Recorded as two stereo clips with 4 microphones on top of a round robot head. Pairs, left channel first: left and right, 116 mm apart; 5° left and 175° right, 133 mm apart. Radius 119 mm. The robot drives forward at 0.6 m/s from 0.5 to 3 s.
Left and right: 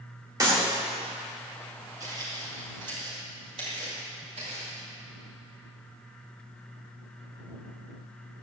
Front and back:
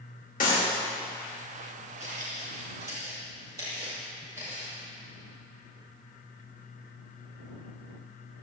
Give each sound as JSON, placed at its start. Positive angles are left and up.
{"t": 0.4, "sound": "a clap", "azimuth_deg": -35, "distance_m": 2.5}
{"t": 2.0, "sound": "footsteps", "azimuth_deg": -125, "distance_m": 3.5}